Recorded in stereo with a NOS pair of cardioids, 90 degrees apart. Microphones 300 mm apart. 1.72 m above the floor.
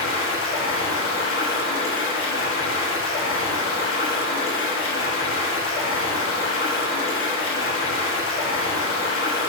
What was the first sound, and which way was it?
Running water, 45° left.